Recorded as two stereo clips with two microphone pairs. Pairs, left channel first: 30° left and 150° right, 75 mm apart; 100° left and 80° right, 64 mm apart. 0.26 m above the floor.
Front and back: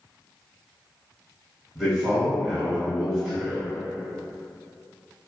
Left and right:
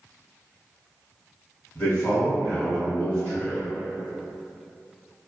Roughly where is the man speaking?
Behind left.